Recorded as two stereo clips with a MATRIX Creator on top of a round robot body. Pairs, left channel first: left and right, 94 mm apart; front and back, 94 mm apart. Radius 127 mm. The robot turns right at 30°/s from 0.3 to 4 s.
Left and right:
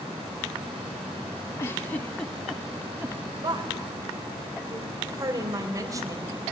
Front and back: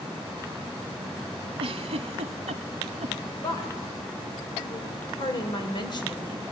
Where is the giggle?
155° left, 0.6 m; by 3.1 s 155° right, 0.6 m.